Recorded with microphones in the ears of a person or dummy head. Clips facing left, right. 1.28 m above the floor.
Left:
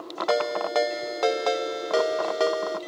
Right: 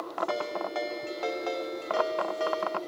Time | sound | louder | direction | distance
0.3 | a ringtone | left 11 dB | 80° left | 0.9 m